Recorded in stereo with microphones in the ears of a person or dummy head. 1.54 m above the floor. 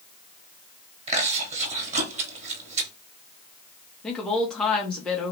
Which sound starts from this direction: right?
Chewing, at 1.1 s.